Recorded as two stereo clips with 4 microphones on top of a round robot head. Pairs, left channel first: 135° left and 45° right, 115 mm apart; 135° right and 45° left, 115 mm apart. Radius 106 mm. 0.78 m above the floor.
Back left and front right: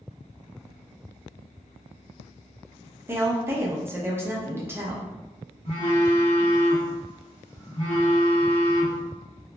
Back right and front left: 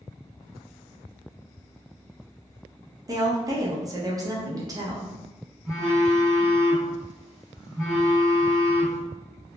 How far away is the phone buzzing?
About 1.5 m.